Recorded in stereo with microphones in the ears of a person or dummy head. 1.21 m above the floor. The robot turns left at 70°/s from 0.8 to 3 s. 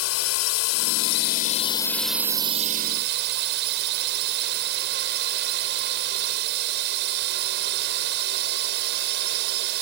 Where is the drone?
90° left; by 9.8 s 60° right.